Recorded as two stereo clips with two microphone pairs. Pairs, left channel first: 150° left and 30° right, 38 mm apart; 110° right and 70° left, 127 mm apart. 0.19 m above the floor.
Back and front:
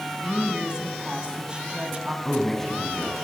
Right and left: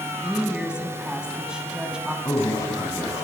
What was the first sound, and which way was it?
A woman speaking, 5° right.